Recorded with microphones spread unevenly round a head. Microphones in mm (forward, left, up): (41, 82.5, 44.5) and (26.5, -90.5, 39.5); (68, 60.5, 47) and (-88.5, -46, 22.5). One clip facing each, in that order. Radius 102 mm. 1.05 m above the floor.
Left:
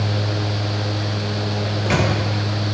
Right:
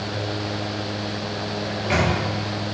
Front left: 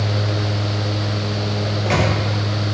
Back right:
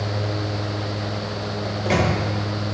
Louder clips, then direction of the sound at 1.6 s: Left 1 dB, even; 130° left.